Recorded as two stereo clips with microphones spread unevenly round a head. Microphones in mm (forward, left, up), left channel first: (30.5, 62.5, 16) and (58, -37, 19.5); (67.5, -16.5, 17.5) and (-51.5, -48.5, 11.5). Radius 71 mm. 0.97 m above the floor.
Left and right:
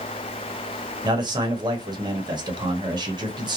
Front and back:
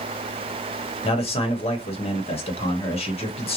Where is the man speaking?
25° right, 1.1 m.